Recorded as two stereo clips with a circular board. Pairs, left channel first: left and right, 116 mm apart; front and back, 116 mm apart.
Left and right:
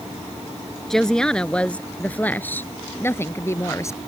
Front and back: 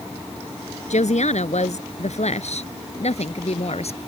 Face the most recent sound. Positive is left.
turn(degrees=25)